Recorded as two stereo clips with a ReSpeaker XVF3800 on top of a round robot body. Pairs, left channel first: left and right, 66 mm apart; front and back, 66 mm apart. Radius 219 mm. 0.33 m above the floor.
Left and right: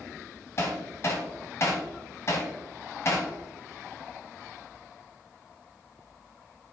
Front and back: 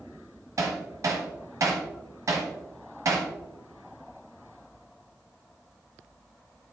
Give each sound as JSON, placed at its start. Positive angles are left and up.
{"t": 0.6, "sound": "hammering", "azimuth_deg": 140, "distance_m": 1.0}